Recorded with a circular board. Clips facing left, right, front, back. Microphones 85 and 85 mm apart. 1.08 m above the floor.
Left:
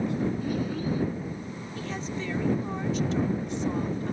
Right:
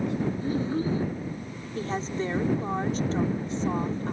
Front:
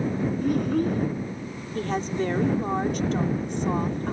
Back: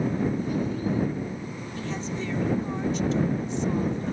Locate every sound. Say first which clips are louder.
0.4 s a child speaking: right 2 dB, front 4 dB; 30° right
1.8 s a woman speaking: right 5 dB, front 6 dB; 35° right